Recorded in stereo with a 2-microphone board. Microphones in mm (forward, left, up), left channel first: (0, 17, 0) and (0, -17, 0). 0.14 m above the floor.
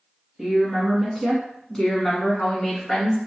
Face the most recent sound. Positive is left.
turn(degrees=25)  # may be behind; listen again after turning